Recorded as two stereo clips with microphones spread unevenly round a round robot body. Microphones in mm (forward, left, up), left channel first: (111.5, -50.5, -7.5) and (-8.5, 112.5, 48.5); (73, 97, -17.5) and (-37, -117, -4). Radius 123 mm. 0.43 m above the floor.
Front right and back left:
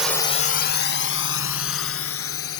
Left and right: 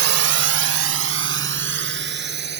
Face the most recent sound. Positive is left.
turn(degrees=-65)